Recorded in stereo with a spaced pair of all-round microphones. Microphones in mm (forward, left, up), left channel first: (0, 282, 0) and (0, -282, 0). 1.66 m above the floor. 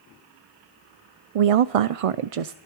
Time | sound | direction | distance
1.4 | a woman speaking | 75° right (ahead or behind) | 0.5 m